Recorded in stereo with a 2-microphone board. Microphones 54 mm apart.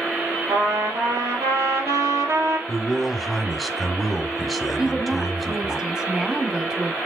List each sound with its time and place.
0.5 s a trumpet: 70° right (ahead or behind), 3 m
2.7 s a man speaking: centre (ahead or behind), 1.3 m
4.8 s a woman speaking: 15° right (ahead or behind), 1.5 m